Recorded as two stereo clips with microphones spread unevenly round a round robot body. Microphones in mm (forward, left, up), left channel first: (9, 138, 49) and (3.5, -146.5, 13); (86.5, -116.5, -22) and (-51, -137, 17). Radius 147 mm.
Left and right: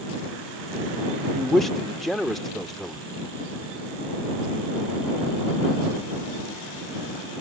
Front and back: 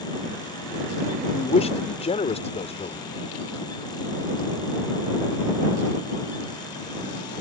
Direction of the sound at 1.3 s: 5° right.